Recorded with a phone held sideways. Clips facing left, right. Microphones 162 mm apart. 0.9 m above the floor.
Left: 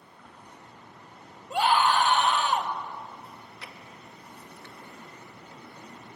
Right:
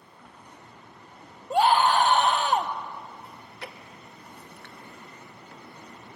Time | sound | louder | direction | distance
0.2 | a splash | even | 10° right (ahead or behind) | 5.5 m
1.5 | a scream | right 3 dB | 40° right (ahead or behind) | 1.3 m
3.2 | chewing | right 3 dB | 60° right (ahead or behind) | 1.1 m